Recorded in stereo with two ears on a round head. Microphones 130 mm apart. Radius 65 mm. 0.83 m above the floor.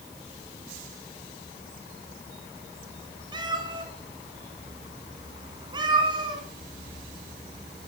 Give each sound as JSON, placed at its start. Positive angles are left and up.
{"t": 3.3, "sound": "a cat meowing", "side_deg": -30, "distance_m": 2.0}